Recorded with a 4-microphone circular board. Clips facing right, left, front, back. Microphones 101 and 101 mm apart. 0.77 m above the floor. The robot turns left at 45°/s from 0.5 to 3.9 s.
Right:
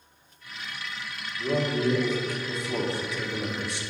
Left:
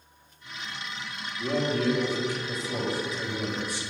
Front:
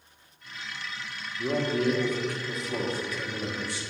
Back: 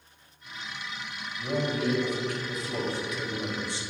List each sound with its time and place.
1.4 s a man speaking: 5° right, 1.2 m; by 3.8 s 115° right, 1.2 m